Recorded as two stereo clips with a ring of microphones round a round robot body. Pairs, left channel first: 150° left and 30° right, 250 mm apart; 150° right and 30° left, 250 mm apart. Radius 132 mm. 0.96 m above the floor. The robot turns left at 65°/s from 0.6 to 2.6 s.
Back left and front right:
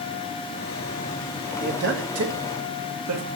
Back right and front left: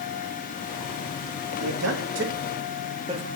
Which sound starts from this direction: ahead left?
A man speaking, at 1.6 s.